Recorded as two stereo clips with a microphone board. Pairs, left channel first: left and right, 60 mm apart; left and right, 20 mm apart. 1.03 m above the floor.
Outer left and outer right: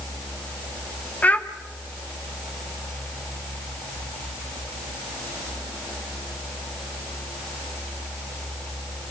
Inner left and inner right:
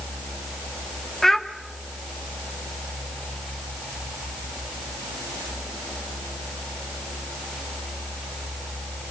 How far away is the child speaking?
About 1.6 m.